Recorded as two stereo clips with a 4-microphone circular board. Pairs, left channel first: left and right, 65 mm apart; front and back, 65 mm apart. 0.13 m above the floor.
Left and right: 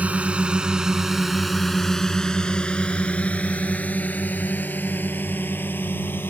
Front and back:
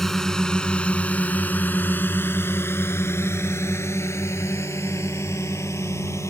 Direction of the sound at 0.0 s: 75° right.